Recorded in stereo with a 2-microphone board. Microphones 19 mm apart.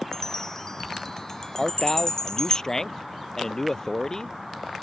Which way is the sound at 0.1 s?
25° left (ahead or behind).